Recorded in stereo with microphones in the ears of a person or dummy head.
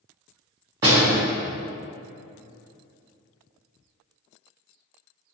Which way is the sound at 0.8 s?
15° right (ahead or behind).